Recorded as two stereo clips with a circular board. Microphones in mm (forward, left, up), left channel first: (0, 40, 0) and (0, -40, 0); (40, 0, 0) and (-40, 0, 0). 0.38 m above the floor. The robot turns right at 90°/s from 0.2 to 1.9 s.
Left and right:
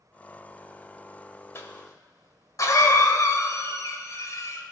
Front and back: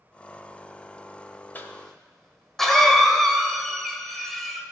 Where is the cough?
50° left, 1.5 m; by 4.6 s 85° left, 1.5 m.